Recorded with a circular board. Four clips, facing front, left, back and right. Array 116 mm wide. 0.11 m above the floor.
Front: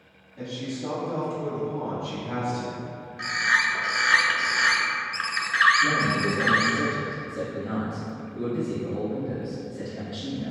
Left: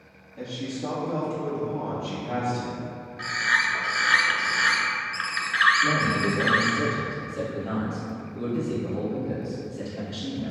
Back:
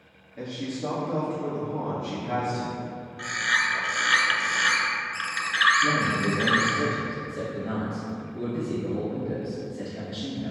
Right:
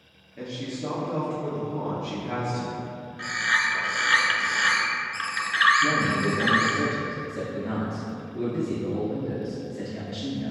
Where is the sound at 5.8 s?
90° right, 1.5 m.